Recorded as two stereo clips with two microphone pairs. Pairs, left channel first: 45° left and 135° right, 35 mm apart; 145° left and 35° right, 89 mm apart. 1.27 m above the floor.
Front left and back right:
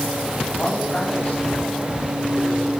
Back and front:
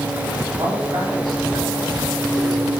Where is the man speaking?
Straight ahead, 9 m.